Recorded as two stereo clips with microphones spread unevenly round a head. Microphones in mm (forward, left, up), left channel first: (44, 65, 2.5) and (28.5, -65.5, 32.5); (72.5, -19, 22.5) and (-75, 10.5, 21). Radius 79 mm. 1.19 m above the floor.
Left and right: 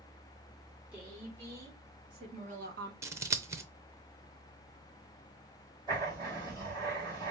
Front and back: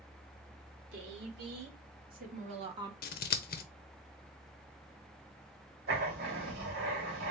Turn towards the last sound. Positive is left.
turn(degrees=-165)